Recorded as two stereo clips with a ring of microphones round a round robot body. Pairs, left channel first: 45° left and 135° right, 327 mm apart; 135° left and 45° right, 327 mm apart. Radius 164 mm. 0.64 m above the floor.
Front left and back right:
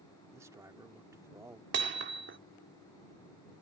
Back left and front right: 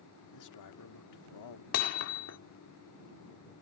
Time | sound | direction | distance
0.3 | a man speaking | 145° left | ?
1.7 | hammering | 175° left | ?